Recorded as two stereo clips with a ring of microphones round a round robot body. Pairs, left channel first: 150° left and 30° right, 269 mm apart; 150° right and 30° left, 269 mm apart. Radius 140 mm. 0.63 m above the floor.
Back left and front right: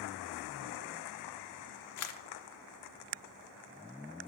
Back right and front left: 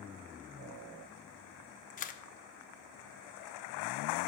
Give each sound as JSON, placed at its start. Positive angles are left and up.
{"t": 2.0, "sound": "a camera shutter", "azimuth_deg": 155, "distance_m": 0.8}